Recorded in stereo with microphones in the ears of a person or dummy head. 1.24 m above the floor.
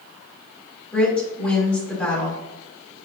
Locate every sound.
0.9 s a woman speaking: 5° left (ahead or behind), 2.5 m